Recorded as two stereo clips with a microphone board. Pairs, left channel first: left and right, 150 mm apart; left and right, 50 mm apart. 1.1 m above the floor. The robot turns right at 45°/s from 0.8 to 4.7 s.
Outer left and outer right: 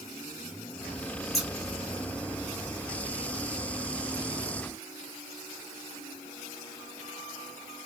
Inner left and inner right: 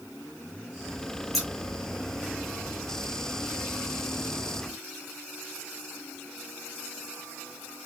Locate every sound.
1.3 s scissors: centre (ahead or behind), 1.4 m; by 1.5 s 5° right (ahead or behind), 1.4 m